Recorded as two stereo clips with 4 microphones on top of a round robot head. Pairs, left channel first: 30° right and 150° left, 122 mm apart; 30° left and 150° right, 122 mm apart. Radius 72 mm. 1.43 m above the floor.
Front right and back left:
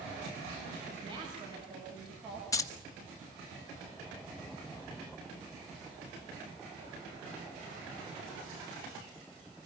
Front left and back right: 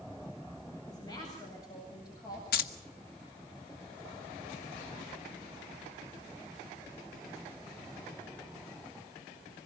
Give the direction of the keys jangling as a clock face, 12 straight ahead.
11 o'clock.